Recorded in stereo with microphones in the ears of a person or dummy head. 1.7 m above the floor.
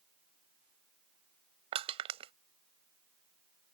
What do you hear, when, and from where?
1.7 s crushing: 30° right (ahead or behind)